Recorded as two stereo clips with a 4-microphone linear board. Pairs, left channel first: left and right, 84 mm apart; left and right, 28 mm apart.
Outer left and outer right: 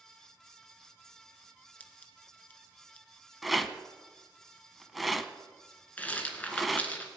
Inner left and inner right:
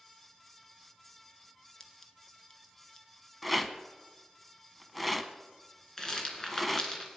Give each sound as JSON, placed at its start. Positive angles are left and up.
{"t": 1.8, "sound": "scissors", "side_deg": 15, "distance_m": 1.0}
{"t": 3.4, "sound": "a rattle", "side_deg": 0, "distance_m": 0.6}
{"t": 6.0, "sound": "a rattle", "side_deg": 20, "distance_m": 1.8}